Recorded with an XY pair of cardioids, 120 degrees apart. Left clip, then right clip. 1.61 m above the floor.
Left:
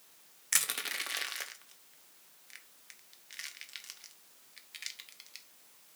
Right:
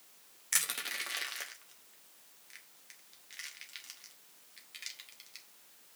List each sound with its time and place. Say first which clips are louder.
0.5 s crushing: left 2 dB; 15° left, 1.2 m